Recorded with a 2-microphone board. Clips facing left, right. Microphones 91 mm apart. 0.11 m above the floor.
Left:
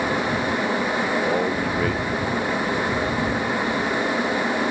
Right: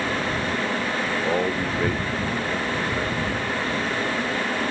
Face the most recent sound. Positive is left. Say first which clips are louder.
# left 1 dB
turn(degrees=0)  # may be behind; listen again after turning